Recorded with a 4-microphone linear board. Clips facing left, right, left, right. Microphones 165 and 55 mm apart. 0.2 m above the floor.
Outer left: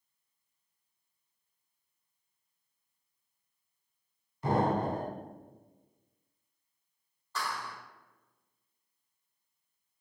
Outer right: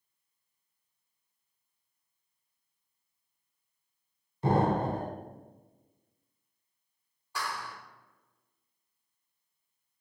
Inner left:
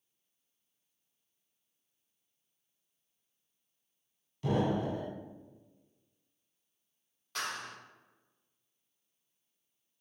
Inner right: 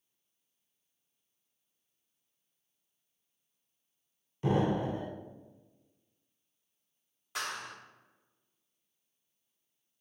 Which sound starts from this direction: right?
An explosion, at 4.4 s.